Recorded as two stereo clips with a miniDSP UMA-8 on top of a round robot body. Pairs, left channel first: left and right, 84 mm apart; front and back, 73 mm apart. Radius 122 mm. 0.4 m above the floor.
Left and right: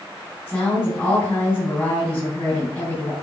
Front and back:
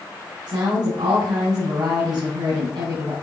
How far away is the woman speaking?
About 4.5 m.